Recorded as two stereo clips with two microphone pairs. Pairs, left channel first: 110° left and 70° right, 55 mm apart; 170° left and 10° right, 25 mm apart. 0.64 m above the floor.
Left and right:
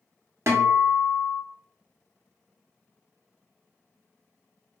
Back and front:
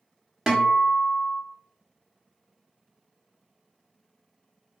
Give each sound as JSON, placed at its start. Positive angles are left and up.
{"t": 0.5, "sound": "a guitar", "azimuth_deg": -70, "distance_m": 0.7}